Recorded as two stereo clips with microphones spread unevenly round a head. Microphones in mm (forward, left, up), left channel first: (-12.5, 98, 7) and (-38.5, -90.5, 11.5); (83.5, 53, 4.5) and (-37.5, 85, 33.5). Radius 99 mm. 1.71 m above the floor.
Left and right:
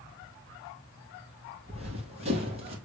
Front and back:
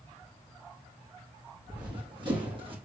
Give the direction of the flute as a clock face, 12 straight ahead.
I don't hear a flute.